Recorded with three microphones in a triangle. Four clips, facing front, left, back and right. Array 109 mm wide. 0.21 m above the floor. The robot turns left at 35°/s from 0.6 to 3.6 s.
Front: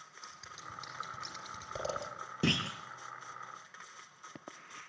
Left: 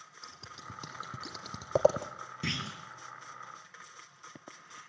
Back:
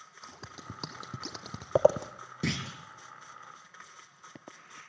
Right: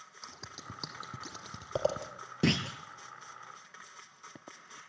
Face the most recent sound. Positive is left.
turn(degrees=-110)